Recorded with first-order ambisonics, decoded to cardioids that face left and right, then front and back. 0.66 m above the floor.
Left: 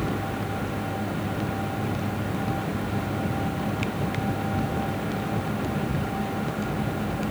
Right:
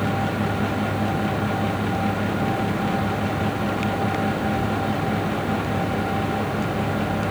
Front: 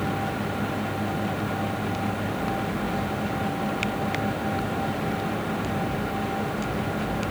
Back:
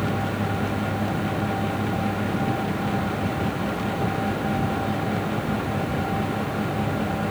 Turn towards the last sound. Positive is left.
No sound to turn to.